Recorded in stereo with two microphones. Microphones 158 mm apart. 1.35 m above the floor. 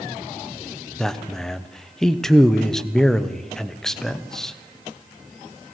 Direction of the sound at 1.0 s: 5° left (ahead or behind).